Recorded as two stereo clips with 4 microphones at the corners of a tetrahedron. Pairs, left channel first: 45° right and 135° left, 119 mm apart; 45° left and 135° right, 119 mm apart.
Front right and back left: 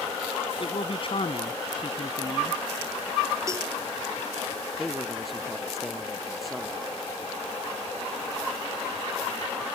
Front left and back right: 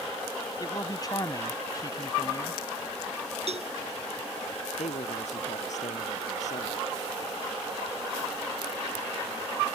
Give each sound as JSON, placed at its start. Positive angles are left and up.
{"t": 0.6, "sound": "a man speaking", "azimuth_deg": -10}
{"t": 3.5, "sound": "a cowbell", "azimuth_deg": -160}
{"t": 4.8, "sound": "a man speaking", "azimuth_deg": 45}